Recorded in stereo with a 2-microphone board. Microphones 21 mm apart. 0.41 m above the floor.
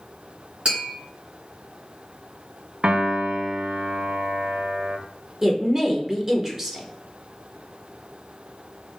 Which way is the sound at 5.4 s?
15° right (ahead or behind).